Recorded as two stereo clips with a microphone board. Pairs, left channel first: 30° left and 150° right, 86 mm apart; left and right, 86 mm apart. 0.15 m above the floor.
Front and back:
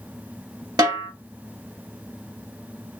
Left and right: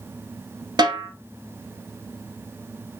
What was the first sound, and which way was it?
A snare drum, 115° right.